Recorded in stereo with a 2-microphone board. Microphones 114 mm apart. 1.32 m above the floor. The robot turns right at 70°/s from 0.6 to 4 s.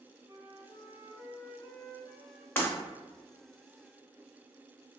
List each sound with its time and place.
0.3 s a flute: 75° left, 1.3 m; by 2.5 s 155° right, 1.3 m
2.6 s breaking glass: 20° left (ahead or behind), 1.1 m; by 2.7 s 25° left (ahead or behind), 1.1 m